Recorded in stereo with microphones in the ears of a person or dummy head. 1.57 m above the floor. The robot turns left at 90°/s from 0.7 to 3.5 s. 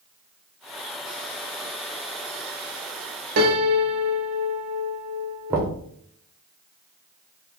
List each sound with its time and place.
3.4 s a piano: 55° right (ahead or behind), 0.6 m; by 5.7 s 65° right (ahead or behind), 0.6 m
5.5 s knocking: 20° right (ahead or behind), 0.5 m